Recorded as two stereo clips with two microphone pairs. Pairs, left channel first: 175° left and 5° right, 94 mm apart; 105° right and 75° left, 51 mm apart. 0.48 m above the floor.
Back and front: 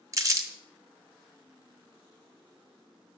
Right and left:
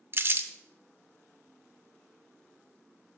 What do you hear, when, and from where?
0.1 s crumpling: 45° left, 0.7 m